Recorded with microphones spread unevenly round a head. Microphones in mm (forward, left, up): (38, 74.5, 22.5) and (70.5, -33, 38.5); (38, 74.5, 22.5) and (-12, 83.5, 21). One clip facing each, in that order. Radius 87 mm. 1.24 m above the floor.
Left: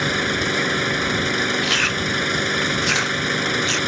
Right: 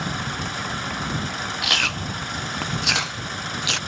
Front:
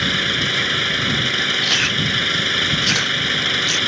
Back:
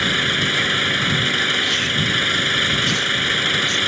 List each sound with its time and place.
0.0 s an engine running: 85° left
1.6 s chewing: 5° right